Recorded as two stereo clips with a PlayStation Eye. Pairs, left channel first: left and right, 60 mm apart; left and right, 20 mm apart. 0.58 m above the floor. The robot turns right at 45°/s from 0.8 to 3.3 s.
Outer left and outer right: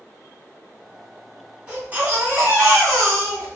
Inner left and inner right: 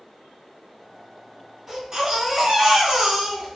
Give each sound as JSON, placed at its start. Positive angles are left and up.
{"t": 1.7, "sound": "a baby crying", "azimuth_deg": -160, "distance_m": 1.8}